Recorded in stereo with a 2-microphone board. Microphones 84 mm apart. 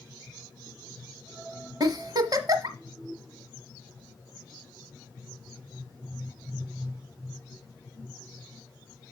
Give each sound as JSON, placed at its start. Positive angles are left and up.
{"t": 1.8, "sound": "a giggle", "side_deg": -55, "distance_m": 1.3}